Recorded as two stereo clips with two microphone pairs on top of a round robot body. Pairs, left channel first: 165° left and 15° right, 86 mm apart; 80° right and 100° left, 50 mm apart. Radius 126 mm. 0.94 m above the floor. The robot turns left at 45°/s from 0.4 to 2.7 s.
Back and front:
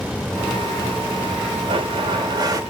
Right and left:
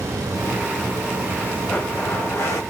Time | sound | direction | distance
1.7 | a blender | 20° right | 1.1 m